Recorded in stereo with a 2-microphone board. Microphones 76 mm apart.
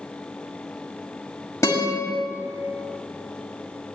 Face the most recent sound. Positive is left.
turn(degrees=35)  # may be behind; listen again after turning